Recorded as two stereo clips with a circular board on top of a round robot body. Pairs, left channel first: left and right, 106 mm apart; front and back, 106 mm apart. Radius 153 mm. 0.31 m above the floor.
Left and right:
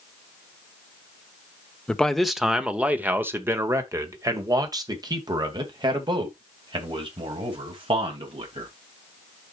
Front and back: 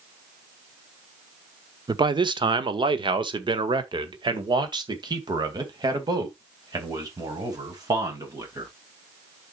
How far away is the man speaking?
About 1.3 m.